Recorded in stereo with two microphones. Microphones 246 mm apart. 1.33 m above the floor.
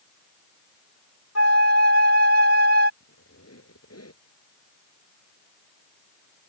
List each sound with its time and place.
1.4 s a flute: 80° left
3.0 s a squeak: 80° left